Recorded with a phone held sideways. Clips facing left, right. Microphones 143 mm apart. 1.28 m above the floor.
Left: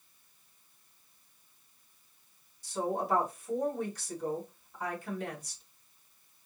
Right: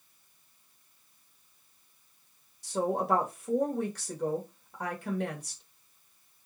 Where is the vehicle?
No vehicle in this recording.